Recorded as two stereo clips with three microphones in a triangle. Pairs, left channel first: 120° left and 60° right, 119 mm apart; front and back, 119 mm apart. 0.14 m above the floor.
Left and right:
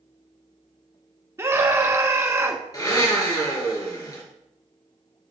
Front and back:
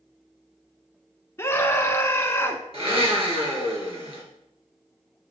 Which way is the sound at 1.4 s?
30° right.